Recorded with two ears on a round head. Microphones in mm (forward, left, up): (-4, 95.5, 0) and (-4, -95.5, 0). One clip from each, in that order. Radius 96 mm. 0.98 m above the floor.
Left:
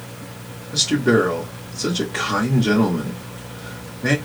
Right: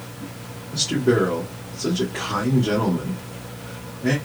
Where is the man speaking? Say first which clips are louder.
Left 3 dB; 75° left (ahead or behind), 1.7 m.